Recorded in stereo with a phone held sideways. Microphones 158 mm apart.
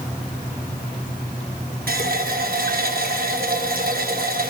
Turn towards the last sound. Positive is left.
turn(degrees=-70)  # may be behind; listen again after turning